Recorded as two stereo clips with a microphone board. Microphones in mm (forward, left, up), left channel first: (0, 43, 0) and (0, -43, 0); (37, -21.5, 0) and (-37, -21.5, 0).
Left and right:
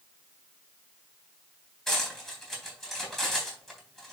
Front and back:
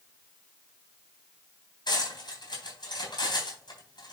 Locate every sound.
1.9 s cutlery clinking: 5° left, 3.5 m